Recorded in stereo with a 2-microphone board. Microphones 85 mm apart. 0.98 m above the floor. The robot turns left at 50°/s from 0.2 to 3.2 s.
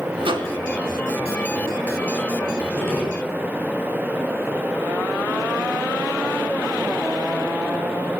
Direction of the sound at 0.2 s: 80° right.